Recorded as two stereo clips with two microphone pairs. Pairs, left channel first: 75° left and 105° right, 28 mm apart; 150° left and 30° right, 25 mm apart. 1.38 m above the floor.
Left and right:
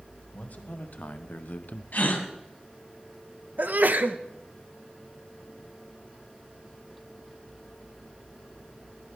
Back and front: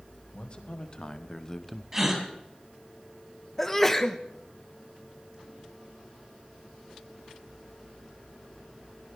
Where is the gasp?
45° left, 2.5 m.